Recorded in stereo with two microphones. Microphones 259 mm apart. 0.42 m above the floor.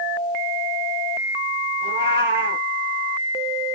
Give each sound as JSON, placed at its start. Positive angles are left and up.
{"t": 1.8, "sound": "a cat meowing", "side_deg": -40, "distance_m": 3.5}